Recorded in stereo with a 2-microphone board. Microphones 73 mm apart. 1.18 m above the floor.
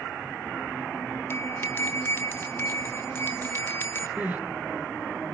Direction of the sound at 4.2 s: 20° right (ahead or behind).